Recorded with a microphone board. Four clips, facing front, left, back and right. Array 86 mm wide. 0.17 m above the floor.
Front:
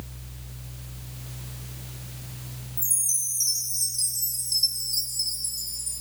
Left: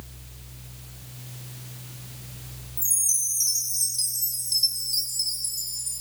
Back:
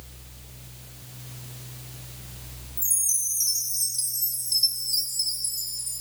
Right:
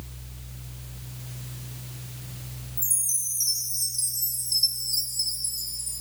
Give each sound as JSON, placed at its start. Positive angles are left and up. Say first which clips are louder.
{"t": 2.8, "sound": "a chime", "louder": "left 1 dB, front 2 dB", "azimuth_deg": 130, "distance_m": 0.9}